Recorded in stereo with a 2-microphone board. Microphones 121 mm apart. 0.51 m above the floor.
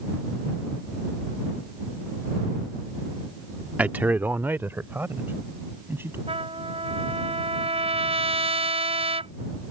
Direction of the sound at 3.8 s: 10° right (ahead or behind).